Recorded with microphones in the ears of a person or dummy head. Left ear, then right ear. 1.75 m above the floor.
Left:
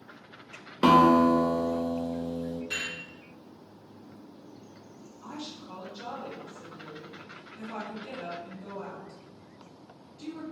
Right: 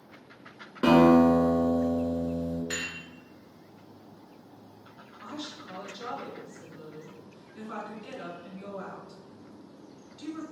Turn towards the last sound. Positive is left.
turn(degrees=-40)  # may be behind; listen again after turning